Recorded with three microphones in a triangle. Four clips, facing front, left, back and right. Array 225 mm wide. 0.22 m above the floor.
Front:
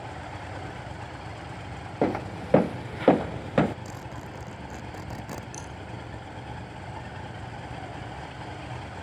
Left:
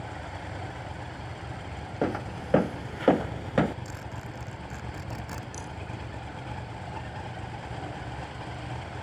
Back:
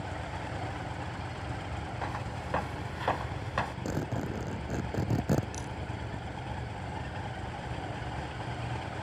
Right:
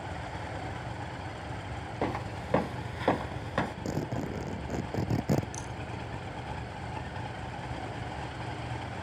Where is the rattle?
Straight behind.